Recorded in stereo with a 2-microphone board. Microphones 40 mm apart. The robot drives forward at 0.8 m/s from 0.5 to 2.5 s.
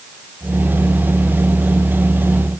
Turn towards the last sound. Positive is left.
No sound to turn to.